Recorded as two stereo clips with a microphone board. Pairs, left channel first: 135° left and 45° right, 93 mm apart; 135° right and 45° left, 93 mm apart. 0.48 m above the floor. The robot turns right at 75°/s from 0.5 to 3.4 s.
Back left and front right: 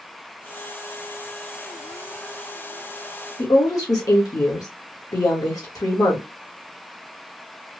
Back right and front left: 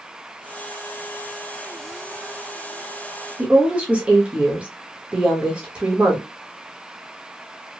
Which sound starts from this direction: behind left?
A woman speaking, at 3.4 s.